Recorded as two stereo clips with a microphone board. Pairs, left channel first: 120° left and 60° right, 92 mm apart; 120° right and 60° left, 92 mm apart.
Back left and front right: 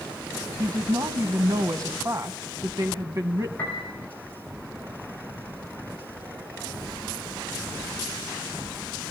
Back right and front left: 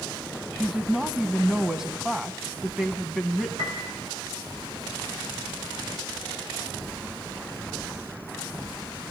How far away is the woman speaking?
About 1.7 m.